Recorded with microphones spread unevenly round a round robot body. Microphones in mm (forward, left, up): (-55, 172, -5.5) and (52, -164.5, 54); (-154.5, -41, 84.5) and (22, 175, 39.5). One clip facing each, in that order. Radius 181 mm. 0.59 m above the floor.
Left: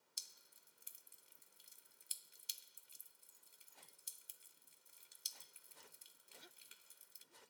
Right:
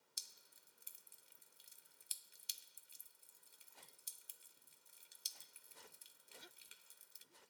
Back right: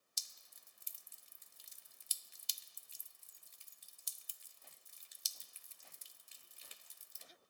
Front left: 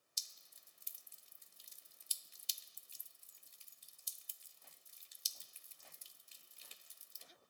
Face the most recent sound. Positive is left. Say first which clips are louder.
# even, back right 3 dB
turn(degrees=-160)